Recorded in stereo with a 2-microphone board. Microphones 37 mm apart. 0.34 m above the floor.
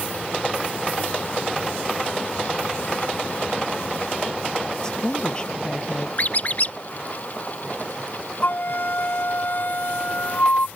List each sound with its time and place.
4.8 s a woman speaking: 20° left (ahead or behind); by 6.1 s 25° left (ahead or behind)
6.2 s a squeak: 45° left (ahead or behind)
8.4 s a flute: 55° left (ahead or behind)